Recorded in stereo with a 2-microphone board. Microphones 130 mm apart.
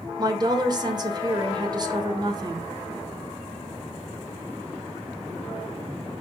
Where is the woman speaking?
35° right (ahead or behind), 1.5 m.